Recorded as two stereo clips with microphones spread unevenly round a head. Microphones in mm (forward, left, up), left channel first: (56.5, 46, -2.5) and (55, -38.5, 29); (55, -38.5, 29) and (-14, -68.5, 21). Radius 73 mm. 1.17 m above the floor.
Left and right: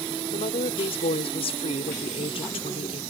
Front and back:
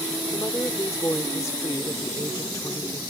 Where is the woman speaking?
90° left.